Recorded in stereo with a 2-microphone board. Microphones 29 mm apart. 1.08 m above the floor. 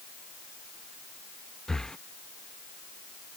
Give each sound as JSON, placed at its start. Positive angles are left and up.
{"t": 1.7, "sound": "breathing", "side_deg": 20}